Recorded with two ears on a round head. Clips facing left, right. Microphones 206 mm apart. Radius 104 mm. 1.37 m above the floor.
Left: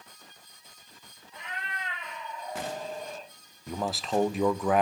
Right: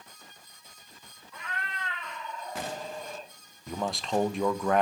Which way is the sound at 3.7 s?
Centre (ahead or behind).